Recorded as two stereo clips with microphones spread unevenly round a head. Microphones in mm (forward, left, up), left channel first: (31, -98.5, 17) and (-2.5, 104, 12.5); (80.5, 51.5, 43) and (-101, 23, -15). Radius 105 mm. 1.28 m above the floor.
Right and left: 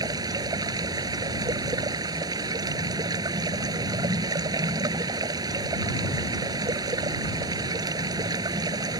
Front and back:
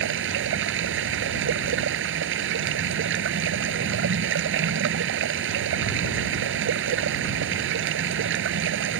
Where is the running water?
175° left.